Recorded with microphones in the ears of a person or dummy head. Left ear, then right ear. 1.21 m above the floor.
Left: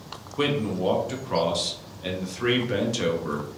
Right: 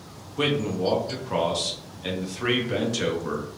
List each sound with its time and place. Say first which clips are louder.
0.4 s a man speaking: right 1 dB; 5° left (ahead or behind), 0.5 m